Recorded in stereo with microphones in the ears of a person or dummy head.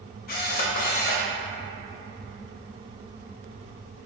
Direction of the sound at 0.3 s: 50° left (ahead or behind).